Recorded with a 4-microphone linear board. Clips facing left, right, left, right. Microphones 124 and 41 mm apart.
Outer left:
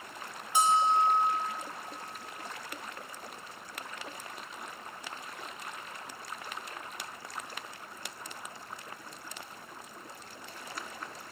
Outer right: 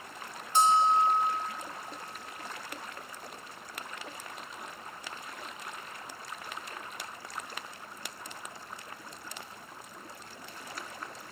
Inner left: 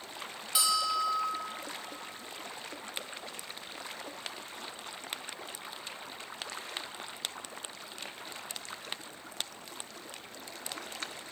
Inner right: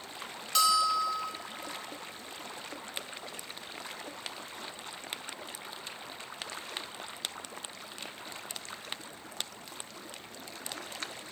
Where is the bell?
10° left (ahead or behind), 1.2 m.